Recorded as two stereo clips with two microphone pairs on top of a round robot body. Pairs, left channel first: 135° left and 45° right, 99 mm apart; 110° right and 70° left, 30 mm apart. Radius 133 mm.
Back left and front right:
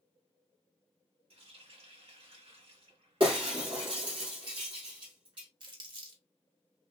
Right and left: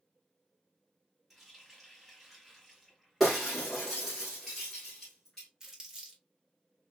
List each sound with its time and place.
1.3 s a running tap: 20° right, 1.6 m
3.2 s breaking glass: 10° right, 1.0 m
5.6 s crumpling: straight ahead, 1.6 m